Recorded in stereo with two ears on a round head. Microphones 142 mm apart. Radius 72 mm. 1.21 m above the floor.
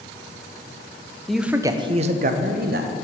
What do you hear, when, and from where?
1.3 s a man speaking: 5° left (ahead or behind), 0.5 m; by 2.9 s 70° right (ahead or behind), 0.8 m